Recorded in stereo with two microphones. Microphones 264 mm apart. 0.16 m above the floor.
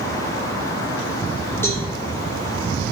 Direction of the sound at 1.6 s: 10° left (ahead or behind).